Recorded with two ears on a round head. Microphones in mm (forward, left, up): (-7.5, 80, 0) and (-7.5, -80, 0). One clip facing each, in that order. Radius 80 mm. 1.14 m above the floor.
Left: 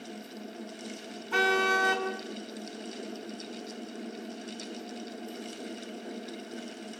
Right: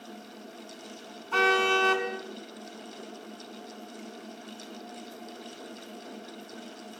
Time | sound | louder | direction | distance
1.3 | a car horn | right 2 dB | 15° left (ahead or behind) | 5 m